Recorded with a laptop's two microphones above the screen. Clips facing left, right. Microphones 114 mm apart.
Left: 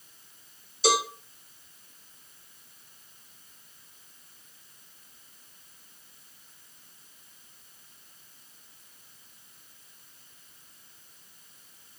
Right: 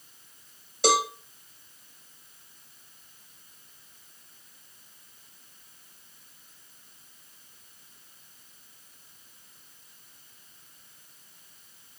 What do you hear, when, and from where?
0.8 s a cowbell: 65° right (ahead or behind), 3.5 m